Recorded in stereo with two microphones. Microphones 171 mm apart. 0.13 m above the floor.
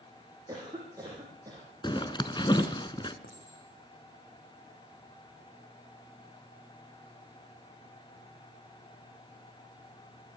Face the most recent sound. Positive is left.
turn(degrees=80)